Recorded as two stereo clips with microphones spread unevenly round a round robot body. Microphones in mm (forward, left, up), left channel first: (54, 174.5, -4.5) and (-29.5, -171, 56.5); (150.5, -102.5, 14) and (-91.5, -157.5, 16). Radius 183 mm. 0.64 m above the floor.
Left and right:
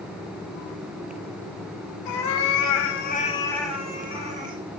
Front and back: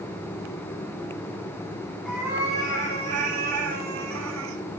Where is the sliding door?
I don't hear a sliding door.